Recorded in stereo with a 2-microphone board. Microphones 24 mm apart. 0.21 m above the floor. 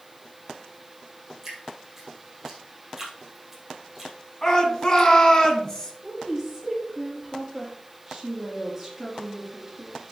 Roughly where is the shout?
Left.